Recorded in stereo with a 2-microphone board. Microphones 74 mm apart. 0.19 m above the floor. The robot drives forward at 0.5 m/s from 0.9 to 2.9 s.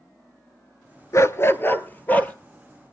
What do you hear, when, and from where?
1.1 s a dog barking: 45° left (ahead or behind), 0.6 m; by 2.3 s 20° left (ahead or behind), 1.1 m